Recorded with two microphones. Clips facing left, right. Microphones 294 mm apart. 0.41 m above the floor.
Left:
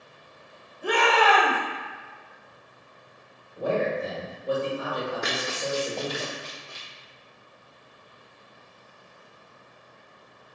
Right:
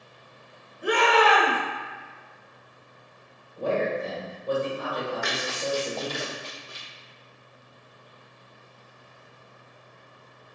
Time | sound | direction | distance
0.8 | a shout | 15° right (ahead or behind) | 1.0 m
3.6 | a man speaking | 10° left (ahead or behind) | 1.4 m
5.2 | running footsteps | 45° left (ahead or behind) | 1.1 m